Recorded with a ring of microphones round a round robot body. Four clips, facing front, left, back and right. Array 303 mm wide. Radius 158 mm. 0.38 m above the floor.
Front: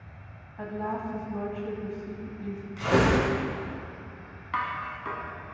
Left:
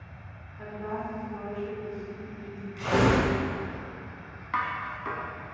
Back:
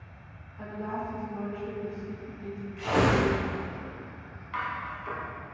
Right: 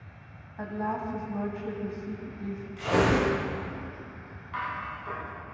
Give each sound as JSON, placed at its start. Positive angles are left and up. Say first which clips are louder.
{"t": 0.6, "sound": "a woman speaking", "louder": "right 3 dB, front 2 dB", "azimuth_deg": -55, "distance_m": 2.5}
{"t": 2.8, "sound": "tearing paper", "louder": "left 1 dB, front 1 dB", "azimuth_deg": 5, "distance_m": 4.5}
{"t": 4.5, "sound": "dishes clattering", "louder": "left 3 dB, front 3 dB", "azimuth_deg": 55, "distance_m": 2.5}